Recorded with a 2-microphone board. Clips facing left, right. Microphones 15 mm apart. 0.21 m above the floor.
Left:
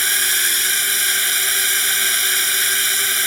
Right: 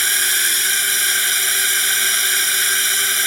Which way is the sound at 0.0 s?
20° right (ahead or behind).